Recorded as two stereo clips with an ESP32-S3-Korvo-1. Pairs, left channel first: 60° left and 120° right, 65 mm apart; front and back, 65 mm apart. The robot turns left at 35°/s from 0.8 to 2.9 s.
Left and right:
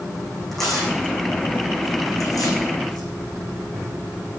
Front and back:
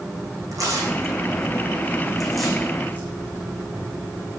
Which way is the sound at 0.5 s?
145° left.